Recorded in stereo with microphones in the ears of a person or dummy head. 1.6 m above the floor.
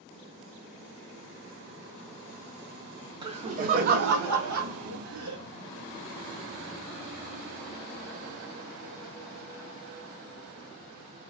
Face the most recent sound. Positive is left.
turn(degrees=-85)